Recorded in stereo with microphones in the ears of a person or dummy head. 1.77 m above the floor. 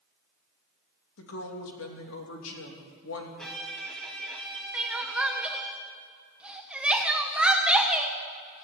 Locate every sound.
1.2 s a woman speaking: 85° left, 3 m
3.4 s a violin: 5° left (ahead or behind), 2.5 m
4.7 s crying: 5° right (ahead or behind), 1.3 m